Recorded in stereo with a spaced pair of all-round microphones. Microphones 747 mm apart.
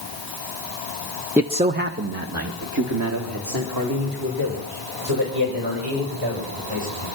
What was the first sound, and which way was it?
A man speaking, centre (ahead or behind).